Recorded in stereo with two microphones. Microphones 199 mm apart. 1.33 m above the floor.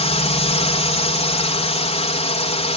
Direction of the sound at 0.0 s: 30° left (ahead or behind).